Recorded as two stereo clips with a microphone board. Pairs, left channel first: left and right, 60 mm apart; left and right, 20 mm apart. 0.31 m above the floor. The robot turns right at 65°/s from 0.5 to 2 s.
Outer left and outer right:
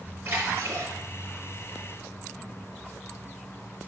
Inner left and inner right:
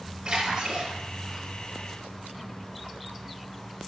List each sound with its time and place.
0.2 s a splash: 35° right (ahead or behind), 5 m; by 0.9 s 60° right (ahead or behind), 5 m